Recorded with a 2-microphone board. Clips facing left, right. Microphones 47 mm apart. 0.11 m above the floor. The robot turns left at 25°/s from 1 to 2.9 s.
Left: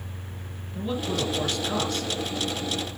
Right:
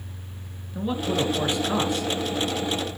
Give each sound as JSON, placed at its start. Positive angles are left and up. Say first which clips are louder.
{"t": 0.8, "sound": "a man speaking", "louder": "right 3 dB", "side_deg": -15, "distance_m": 1.4}